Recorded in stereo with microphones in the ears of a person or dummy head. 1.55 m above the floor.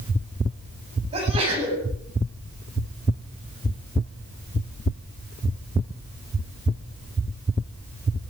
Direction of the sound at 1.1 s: 30° right (ahead or behind).